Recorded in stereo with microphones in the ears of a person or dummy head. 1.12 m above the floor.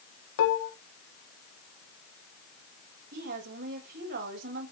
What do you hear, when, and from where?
0.4 s dishes clattering: 70° left (ahead or behind), 1.2 m
3.1 s a woman speaking: 55° right (ahead or behind), 6.5 m